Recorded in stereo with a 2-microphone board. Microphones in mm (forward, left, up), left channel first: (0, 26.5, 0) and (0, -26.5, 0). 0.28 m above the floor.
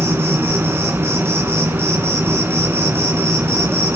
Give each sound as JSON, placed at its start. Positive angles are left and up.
{"t": 0.0, "sound": "an insect", "side_deg": -50, "distance_m": 1.9}